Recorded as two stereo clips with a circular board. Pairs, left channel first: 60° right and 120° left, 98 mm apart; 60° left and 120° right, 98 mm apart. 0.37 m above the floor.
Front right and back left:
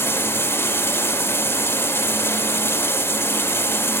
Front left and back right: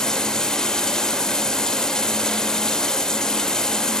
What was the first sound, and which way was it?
Running water, 20° right.